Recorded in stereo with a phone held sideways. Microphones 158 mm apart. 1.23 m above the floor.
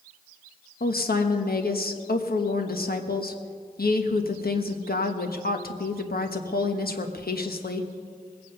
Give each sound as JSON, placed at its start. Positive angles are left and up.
{"t": 0.8, "sound": "a woman speaking", "side_deg": 75, "distance_m": 1.2}